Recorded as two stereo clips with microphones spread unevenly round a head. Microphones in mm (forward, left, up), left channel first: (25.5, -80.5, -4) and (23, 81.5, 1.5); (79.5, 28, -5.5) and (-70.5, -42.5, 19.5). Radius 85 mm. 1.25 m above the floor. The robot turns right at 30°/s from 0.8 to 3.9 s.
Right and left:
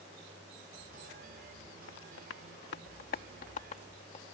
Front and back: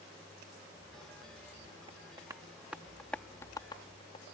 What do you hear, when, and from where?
1.9 s tapping: 95° right; by 4.2 s 35° right